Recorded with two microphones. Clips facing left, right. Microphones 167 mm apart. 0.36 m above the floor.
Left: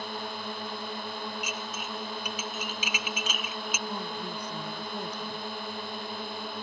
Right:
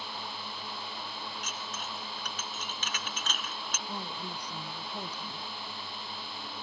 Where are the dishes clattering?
10° left (ahead or behind).